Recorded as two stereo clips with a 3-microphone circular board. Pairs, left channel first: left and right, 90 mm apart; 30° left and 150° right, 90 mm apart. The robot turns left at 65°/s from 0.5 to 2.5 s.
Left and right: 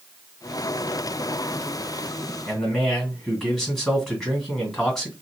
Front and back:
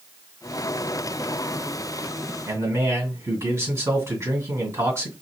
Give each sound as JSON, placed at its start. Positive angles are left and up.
{"t": 2.5, "sound": "a man speaking", "azimuth_deg": 180, "distance_m": 2.0}